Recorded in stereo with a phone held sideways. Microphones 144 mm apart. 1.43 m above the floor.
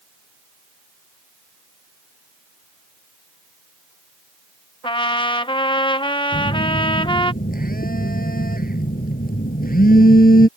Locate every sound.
4.8 s a trumpet: 35° left (ahead or behind)
6.3 s a phone buzzing: 90° left